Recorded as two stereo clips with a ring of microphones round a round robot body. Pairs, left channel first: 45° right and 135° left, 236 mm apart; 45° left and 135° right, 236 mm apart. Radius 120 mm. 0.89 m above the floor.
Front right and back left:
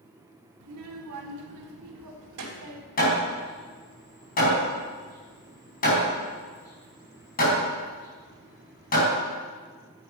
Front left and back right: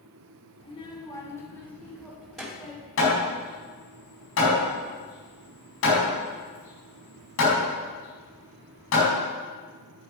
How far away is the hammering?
About 4 m.